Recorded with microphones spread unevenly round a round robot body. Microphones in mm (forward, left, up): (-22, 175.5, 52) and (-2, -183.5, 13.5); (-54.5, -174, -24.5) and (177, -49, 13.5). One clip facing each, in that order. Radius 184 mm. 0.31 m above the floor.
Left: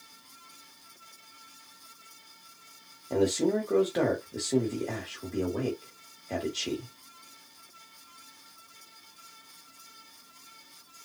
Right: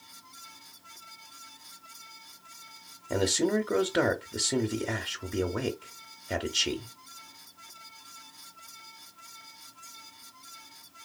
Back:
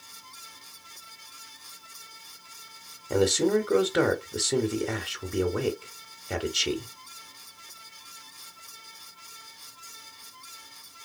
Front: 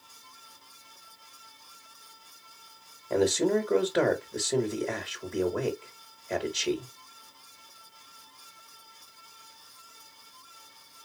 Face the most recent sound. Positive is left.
turn(degrees=-115)